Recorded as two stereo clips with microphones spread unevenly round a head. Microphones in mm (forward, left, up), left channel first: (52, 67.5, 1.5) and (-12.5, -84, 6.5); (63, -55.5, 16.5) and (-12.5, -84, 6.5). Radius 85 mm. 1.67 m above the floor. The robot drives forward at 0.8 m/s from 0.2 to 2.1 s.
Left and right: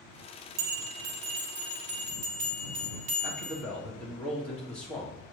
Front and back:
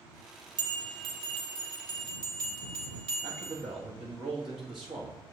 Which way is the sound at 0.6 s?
135° right.